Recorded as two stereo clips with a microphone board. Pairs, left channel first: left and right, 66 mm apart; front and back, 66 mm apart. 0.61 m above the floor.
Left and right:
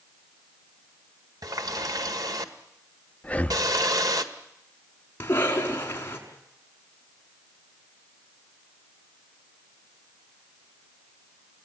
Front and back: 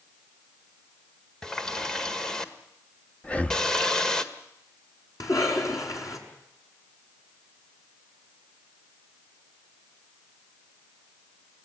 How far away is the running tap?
About 1.7 m.